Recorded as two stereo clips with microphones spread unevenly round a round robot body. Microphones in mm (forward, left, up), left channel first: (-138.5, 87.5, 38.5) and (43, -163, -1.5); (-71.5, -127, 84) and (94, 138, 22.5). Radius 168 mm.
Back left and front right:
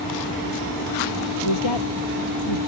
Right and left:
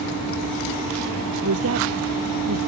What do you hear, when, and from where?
1.4 s a woman speaking: 105° left